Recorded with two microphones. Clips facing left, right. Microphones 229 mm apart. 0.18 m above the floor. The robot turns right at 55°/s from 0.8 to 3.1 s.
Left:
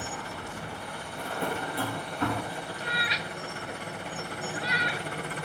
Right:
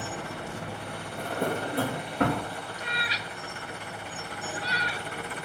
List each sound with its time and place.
0.0 s an engine running: 80° right, 3.5 m; by 5.5 s 45° left, 3.5 m
1.1 s a drawer: 25° right (ahead or behind), 3.5 m; by 2.5 s 80° right, 3.5 m
2.8 s a cat meowing: 15° right (ahead or behind), 0.6 m; by 5.1 s 30° right (ahead or behind), 0.6 m